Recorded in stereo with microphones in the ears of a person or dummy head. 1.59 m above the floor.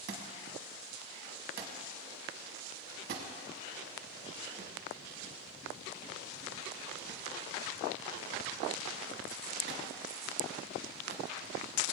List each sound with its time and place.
0.1 s a thud: 50° right (ahead or behind), 1.4 m